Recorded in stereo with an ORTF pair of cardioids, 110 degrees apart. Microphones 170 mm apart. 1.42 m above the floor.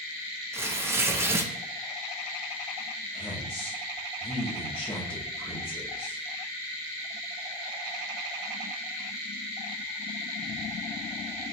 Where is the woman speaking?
5° left, 0.7 m.